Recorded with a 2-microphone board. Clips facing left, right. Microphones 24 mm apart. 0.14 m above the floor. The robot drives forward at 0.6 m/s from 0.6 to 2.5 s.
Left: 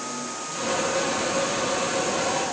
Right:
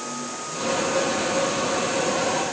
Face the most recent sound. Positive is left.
No sound to turn to.